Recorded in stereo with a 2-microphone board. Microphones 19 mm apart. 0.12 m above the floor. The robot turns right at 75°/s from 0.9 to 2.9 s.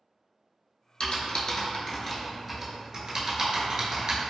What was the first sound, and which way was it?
Typing on a keyboard, 55° left (ahead or behind).